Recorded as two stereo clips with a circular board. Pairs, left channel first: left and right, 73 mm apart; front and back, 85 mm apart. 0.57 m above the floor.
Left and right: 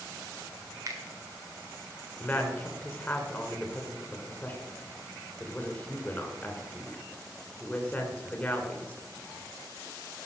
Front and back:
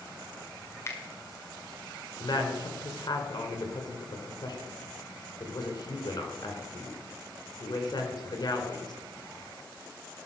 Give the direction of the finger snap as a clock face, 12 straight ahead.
2 o'clock.